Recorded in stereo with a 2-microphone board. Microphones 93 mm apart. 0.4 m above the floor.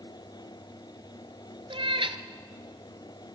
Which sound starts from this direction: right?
A cat meowing, at 1.7 s.